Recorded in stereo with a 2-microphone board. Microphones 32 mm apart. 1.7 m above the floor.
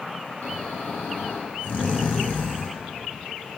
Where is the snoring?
70° left (ahead or behind), 1.0 m.